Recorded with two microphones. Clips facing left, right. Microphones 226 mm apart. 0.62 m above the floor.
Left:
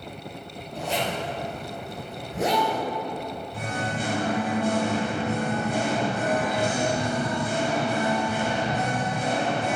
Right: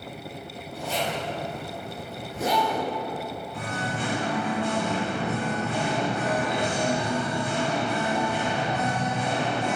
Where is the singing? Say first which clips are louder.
Left 2 dB; 45° left (ahead or behind), 1.6 m.